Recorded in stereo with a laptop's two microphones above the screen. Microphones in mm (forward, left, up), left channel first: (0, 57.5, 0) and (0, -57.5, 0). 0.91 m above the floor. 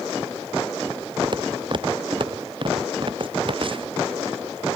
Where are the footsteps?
45° right (ahead or behind); by 3.9 s 50° right (ahead or behind).